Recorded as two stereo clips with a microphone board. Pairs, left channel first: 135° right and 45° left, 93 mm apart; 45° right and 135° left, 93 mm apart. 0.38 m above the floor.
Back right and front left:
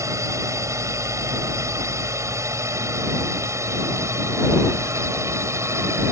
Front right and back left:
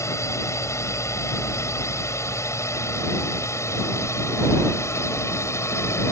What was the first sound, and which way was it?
A drone, straight ahead.